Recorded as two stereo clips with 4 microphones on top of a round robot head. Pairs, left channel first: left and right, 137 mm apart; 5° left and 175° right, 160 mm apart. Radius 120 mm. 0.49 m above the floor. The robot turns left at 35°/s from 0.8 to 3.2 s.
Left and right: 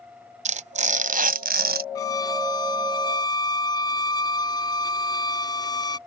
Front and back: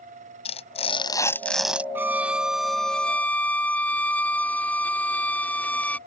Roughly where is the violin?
Behind left.